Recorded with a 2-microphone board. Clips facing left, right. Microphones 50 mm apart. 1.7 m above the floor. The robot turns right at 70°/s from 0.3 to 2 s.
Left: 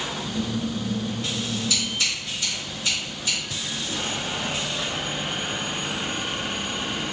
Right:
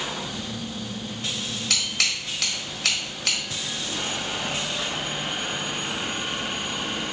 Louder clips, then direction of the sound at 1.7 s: Even; 65° right (ahead or behind).